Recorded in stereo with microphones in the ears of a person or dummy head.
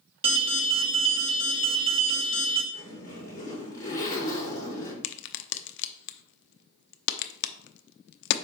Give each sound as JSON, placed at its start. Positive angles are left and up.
{"t": 0.2, "sound": "an alarm", "side_deg": -30, "distance_m": 0.9}
{"t": 2.7, "sound": "a zipper", "side_deg": 20, "distance_m": 4.5}
{"t": 5.0, "sound": "a crack", "side_deg": 65, "distance_m": 0.7}